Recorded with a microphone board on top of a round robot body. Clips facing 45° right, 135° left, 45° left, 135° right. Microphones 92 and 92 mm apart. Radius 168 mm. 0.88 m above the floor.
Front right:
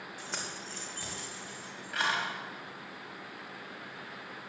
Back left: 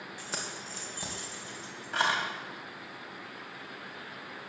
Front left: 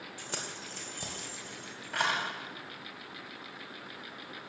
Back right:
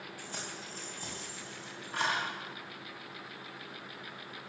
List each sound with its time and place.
0.2 s keys jangling: 45° left, 2 m; by 2.2 s 75° left, 4 m